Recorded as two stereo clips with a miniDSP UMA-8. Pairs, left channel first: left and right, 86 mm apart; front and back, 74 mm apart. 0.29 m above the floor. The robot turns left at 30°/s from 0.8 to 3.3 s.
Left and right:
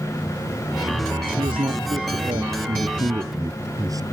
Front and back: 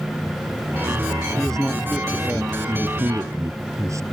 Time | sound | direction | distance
1.4 | a man speaking | 75° right | ?